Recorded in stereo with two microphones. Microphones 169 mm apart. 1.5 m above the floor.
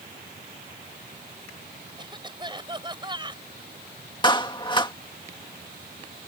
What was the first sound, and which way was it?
A cough, 25° right (ahead or behind).